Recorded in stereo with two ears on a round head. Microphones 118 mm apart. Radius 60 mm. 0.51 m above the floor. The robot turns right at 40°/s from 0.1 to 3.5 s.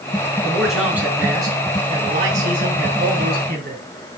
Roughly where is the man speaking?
Behind.